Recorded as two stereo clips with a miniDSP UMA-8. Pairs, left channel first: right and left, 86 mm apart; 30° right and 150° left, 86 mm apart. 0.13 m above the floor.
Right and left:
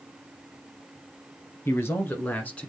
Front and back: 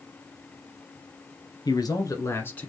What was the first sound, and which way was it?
A man speaking, 40° right.